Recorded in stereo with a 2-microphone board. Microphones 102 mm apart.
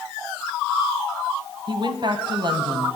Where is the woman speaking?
50° right (ahead or behind), 1.9 m.